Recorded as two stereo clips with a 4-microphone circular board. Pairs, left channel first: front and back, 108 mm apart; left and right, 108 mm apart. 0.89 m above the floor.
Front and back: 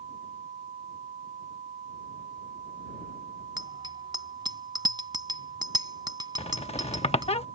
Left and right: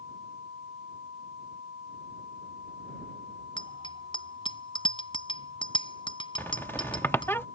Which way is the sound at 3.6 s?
130° left.